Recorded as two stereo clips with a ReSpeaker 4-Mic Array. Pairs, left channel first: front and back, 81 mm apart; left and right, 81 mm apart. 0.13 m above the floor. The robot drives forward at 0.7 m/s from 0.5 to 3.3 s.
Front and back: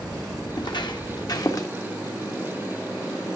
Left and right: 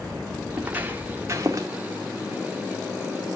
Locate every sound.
0.6 s footsteps: 20° right, 2 m; by 1.7 s 45° right, 1.9 m